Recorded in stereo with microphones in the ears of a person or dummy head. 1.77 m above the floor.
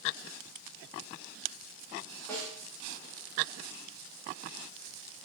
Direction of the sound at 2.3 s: 20° left (ahead or behind).